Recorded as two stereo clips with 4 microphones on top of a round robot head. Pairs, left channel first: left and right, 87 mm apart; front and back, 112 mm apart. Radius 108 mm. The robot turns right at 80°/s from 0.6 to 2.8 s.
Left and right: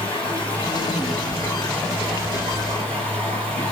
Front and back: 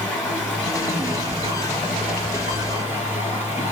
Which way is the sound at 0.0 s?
80° left.